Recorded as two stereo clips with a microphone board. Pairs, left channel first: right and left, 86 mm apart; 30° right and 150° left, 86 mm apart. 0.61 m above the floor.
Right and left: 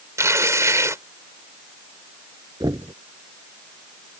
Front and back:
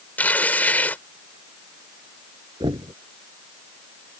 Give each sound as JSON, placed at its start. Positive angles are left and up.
{"t": 0.2, "sound": "tearing paper", "azimuth_deg": 40}
{"t": 2.6, "sound": "knocking", "azimuth_deg": 125}